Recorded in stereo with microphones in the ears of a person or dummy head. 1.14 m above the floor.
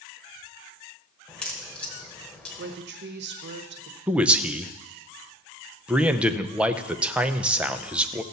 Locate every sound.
1.3 s a crack: 5° left (ahead or behind), 1.2 m
2.6 s a woman speaking: 50° right (ahead or behind), 1.1 m
4.1 s a man speaking: 5° right (ahead or behind), 0.6 m